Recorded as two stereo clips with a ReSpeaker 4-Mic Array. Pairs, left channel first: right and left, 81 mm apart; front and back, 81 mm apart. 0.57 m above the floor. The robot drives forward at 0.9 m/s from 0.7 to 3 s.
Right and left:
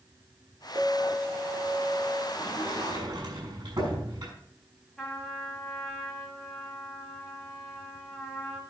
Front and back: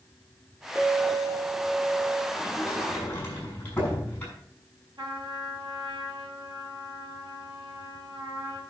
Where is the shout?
No shout in this recording.